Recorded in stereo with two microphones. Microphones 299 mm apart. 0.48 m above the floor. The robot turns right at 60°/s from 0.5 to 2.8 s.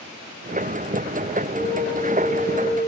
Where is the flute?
110° right, 4.5 m; by 2.9 s 35° right, 4.5 m.